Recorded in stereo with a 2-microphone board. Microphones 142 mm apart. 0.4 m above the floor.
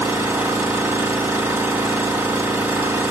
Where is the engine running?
15° right (ahead or behind), 1.3 m.